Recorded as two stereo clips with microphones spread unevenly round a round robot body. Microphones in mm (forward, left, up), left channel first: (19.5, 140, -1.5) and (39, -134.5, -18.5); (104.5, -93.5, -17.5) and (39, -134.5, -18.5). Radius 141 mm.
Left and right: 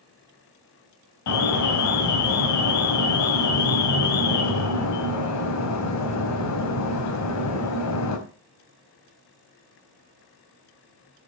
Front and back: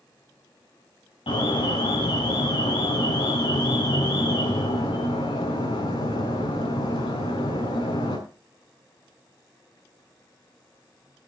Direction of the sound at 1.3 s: 65° left.